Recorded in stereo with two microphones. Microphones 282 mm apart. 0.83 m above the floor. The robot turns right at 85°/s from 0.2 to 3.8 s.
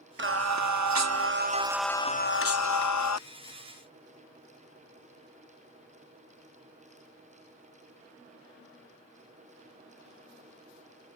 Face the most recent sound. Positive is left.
turn(degrees=170)